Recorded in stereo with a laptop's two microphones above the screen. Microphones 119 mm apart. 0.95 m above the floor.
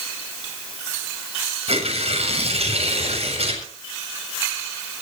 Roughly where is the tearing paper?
Right.